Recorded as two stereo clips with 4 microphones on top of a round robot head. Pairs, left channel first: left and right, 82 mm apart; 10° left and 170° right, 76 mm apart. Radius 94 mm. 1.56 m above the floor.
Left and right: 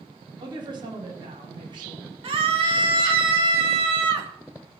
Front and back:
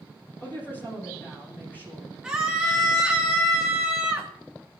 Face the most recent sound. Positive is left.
turn(degrees=-90)